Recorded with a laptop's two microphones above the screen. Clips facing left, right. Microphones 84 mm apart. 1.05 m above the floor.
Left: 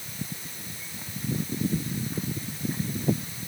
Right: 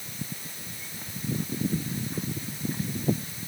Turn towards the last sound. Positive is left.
No sound to turn to.